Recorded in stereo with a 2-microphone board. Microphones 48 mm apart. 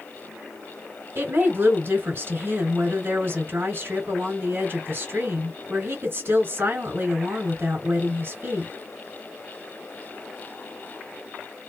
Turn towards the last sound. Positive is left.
turn(degrees=-40)  # may be behind; listen again after turning